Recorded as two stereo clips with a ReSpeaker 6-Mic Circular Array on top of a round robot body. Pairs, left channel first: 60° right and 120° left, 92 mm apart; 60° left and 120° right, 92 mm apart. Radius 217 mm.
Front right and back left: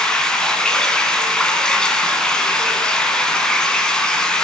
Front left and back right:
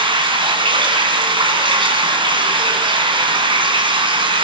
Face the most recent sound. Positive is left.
turn(degrees=-145)